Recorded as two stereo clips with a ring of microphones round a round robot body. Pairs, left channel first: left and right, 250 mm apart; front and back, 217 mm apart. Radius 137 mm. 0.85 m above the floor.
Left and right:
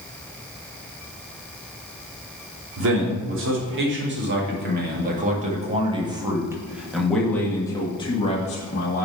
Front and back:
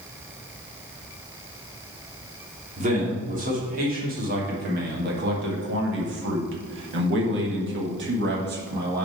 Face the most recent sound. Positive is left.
turn(degrees=140)